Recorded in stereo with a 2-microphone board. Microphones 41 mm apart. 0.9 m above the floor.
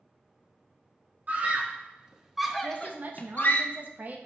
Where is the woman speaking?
45° right (ahead or behind), 1.2 m.